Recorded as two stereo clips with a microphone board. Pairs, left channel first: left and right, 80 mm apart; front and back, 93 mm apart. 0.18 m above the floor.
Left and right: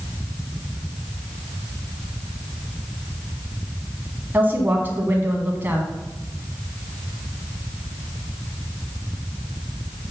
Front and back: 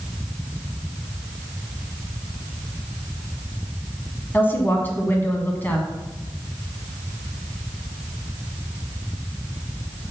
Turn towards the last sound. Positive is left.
turn(degrees=-50)